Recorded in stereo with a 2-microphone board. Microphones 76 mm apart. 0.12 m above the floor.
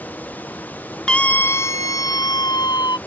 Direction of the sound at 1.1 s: 10° left (ahead or behind).